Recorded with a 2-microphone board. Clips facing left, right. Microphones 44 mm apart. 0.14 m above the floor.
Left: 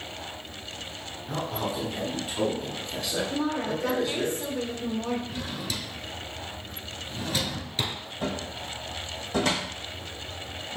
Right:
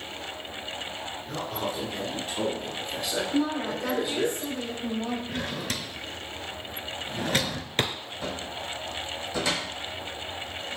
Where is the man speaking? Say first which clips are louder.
Left 2 dB; 10° left (ahead or behind), 1.6 m; by 4.3 s 15° right (ahead or behind), 1.8 m.